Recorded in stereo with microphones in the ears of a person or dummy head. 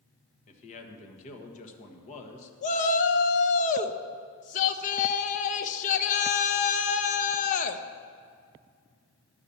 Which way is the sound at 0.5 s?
45° left (ahead or behind).